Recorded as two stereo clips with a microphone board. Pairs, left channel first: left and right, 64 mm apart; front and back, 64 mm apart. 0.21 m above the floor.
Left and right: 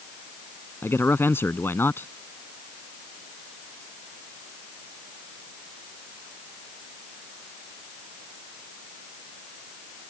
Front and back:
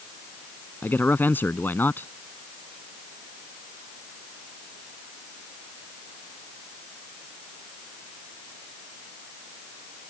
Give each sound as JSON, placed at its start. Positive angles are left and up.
{"t": 0.8, "sound": "a man speaking", "azimuth_deg": 50}